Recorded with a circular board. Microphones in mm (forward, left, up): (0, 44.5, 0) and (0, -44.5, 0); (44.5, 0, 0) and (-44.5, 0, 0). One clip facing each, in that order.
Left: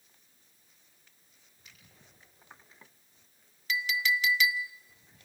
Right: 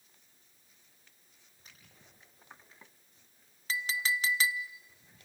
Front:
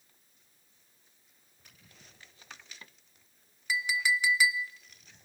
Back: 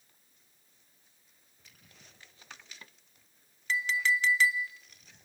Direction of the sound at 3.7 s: 70° right.